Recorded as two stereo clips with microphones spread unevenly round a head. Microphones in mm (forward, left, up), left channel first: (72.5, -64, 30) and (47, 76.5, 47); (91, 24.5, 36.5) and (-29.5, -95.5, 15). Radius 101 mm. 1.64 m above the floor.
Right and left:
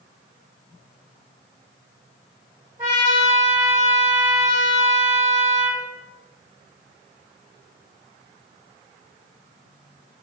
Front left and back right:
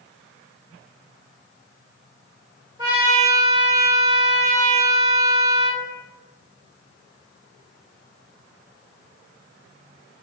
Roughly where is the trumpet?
Behind.